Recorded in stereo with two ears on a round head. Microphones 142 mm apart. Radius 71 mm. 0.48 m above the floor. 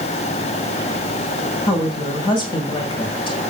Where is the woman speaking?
35° left (ahead or behind), 2.5 m.